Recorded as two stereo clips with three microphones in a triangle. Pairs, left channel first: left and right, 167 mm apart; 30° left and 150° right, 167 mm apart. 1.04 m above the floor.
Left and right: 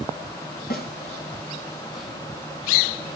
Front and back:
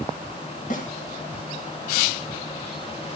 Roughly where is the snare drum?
Ahead left.